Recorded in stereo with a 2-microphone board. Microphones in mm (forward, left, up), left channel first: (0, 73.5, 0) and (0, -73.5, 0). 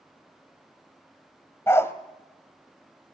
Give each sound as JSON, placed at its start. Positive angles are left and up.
{"t": 1.7, "sound": "a dog barking", "side_deg": 20, "distance_m": 1.2}